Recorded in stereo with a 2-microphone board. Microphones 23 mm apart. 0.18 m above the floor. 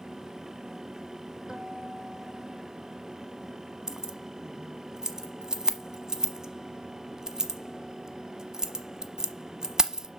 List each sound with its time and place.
1.5 s a guitar: 25° right (ahead or behind), 2 m
3.9 s keys jangling: 25° right (ahead or behind), 0.9 m